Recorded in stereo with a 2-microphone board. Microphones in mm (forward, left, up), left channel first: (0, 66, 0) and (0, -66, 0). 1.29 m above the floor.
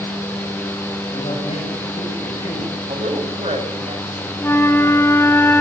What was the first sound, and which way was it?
A man speaking, 55° left (ahead or behind).